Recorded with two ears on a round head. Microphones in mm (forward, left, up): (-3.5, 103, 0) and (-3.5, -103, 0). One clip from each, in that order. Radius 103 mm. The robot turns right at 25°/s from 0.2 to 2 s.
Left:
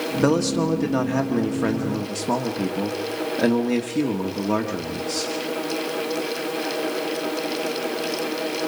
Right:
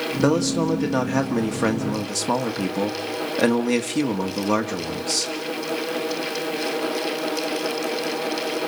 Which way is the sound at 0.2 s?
175° right.